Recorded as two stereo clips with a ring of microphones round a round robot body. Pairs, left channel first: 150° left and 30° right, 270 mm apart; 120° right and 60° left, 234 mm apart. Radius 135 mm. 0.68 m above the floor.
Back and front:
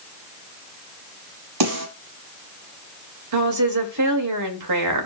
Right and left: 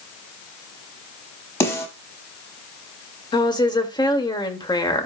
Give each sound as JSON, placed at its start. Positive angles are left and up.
{"t": 1.6, "sound": "a snare drum", "azimuth_deg": -40, "distance_m": 7.0}
{"t": 3.3, "sound": "a woman speaking", "azimuth_deg": -50, "distance_m": 2.5}